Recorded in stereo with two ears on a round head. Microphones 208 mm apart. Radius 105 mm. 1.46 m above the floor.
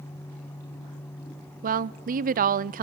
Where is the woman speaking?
35° right (ahead or behind), 0.5 m.